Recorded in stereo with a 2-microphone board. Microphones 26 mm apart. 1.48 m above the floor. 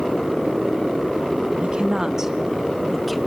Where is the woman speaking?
40° right (ahead or behind), 0.8 m; by 3.2 s centre (ahead or behind), 1.2 m.